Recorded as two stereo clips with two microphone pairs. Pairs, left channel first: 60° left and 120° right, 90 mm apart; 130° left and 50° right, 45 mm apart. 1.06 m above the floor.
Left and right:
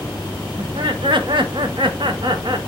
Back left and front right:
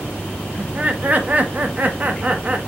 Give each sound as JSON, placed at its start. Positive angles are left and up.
{"t": 0.6, "sound": "laughter", "azimuth_deg": -100, "distance_m": 0.7}